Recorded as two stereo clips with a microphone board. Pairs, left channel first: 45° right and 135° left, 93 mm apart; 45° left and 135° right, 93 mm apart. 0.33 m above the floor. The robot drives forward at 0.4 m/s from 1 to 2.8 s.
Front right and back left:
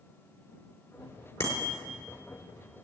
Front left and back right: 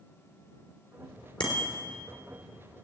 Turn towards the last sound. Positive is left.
turn(degrees=20)